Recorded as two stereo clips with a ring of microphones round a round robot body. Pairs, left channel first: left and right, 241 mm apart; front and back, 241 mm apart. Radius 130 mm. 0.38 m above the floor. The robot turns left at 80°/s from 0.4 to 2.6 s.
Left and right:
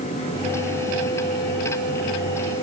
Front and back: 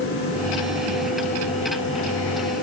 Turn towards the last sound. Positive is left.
No sound to turn to.